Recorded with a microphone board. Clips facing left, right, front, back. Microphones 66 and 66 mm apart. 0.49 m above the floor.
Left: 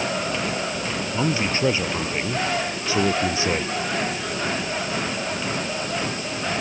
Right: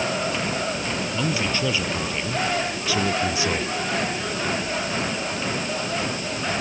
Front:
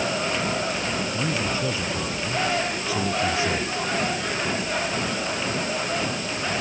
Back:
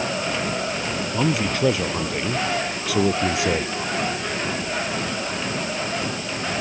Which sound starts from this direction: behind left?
A man speaking, at 1.1 s.